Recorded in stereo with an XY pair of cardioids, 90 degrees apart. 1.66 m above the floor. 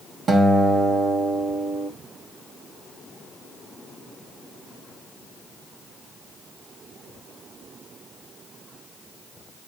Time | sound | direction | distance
0.3 | a guitar | 65° right | 2.5 m